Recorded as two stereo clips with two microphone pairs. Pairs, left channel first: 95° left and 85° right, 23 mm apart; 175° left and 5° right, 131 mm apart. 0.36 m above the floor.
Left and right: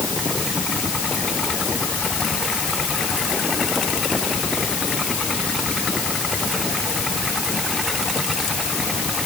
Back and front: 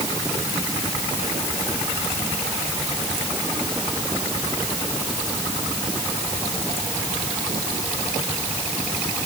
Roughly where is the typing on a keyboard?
I don't hear typing on a keyboard.